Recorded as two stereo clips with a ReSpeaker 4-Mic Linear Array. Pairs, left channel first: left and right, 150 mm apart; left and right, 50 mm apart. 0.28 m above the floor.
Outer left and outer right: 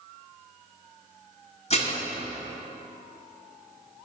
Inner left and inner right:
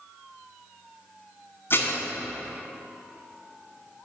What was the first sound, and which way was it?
Dishes clattering, 50° left (ahead or behind).